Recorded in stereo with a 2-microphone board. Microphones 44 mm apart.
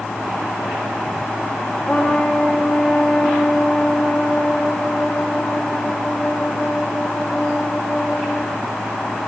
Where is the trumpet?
20° left (ahead or behind), 4.5 m.